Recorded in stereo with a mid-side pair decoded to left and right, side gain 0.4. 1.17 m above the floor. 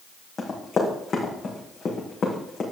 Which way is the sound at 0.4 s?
50° left.